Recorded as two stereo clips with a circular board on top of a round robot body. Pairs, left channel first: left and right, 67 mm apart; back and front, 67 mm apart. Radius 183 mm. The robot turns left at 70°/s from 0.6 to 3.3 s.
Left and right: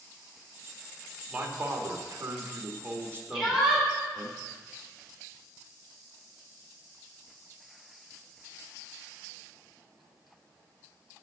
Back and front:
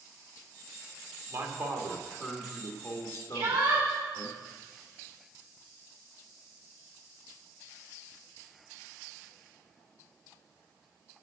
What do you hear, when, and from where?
1.3 s a man speaking: 5° right, 1.9 m; by 4.3 s 145° right, 1.9 m
3.3 s a shout: 5° right, 5.5 m